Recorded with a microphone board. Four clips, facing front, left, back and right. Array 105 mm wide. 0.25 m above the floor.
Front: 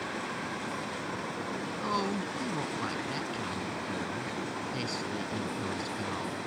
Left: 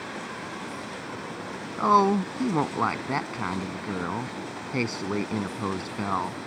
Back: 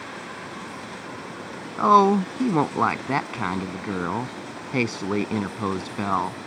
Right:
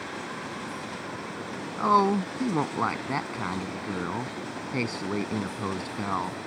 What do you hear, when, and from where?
1.8 s a woman speaking: 170° left